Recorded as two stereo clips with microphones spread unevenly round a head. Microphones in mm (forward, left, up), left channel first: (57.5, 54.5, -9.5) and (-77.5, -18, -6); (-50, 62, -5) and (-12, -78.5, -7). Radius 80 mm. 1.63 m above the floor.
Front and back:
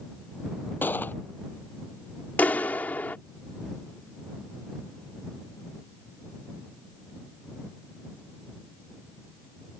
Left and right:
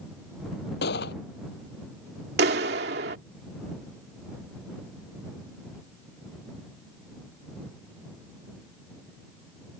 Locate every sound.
0.8 s a gunshot: 105° left
2.4 s a clap: 55° right